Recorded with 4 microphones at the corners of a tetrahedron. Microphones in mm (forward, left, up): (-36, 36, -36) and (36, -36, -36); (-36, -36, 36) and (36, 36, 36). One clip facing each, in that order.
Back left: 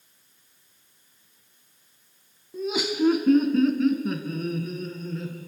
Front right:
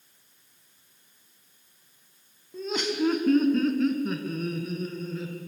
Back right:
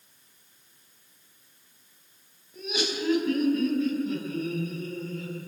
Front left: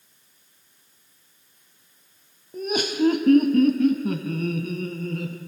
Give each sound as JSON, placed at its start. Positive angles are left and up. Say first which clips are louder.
{"t": 2.5, "sound": "laughter", "louder": "back left 2 dB, front left 7 dB", "azimuth_deg": 55, "distance_m": 1.9}